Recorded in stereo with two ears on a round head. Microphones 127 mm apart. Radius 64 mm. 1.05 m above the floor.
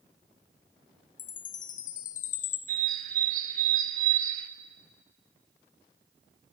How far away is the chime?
About 0.9 m.